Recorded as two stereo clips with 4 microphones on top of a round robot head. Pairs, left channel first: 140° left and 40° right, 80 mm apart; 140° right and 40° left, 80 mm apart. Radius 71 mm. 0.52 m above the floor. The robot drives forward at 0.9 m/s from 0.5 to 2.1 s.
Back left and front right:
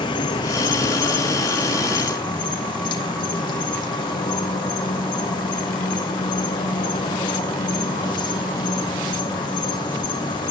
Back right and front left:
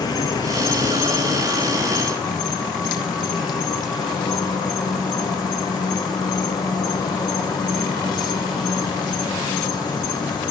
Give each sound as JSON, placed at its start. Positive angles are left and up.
{"t": 0.0, "sound": "an insect", "azimuth_deg": 175, "distance_m": 1.3}